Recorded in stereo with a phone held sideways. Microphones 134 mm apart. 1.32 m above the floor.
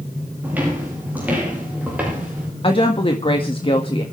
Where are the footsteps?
15° right (ahead or behind), 10 m; by 2.5 s 10° right (ahead or behind), 8.5 m.